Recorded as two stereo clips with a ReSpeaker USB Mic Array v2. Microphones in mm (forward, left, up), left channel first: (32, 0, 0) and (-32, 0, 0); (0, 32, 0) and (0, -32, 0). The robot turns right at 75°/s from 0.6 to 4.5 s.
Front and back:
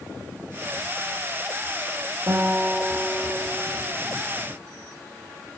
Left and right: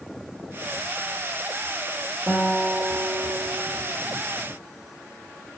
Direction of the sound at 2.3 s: 170° right.